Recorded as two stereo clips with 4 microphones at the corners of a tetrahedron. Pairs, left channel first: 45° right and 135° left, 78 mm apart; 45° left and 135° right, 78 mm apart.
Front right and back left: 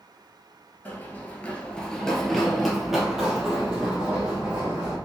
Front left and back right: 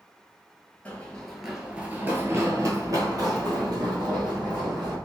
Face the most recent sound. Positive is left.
turn(degrees=-150)